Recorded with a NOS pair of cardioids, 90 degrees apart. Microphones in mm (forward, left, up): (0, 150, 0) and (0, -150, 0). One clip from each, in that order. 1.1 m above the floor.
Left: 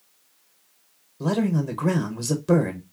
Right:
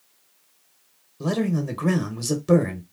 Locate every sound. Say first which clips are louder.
1.2 s a man speaking: left 1 dB; straight ahead, 0.9 m